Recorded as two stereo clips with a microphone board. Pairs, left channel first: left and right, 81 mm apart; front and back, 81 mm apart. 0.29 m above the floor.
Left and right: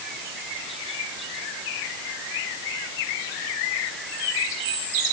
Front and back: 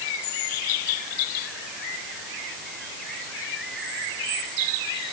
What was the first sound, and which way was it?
Only background noise.